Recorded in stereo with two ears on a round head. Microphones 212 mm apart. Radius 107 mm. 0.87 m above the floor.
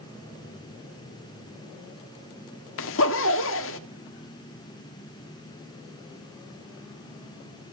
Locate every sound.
2.8 s a zipper: 55° left (ahead or behind), 1.6 m